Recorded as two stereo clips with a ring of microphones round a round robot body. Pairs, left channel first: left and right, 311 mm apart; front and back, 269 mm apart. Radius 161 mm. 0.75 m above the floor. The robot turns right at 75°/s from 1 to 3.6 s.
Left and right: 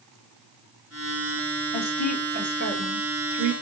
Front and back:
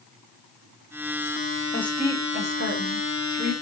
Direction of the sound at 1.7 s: 75° left.